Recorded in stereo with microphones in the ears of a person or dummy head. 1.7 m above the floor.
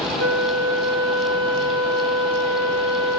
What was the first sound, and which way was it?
A flute, 45° right (ahead or behind).